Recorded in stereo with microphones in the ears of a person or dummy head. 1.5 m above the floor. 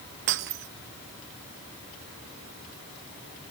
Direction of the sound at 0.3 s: 70° right (ahead or behind).